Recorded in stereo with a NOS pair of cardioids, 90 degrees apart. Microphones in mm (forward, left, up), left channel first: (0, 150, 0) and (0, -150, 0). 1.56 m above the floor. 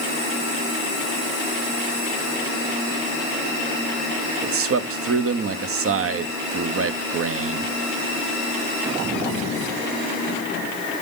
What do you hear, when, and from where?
4.4 s a man speaking: 50° right, 1.1 m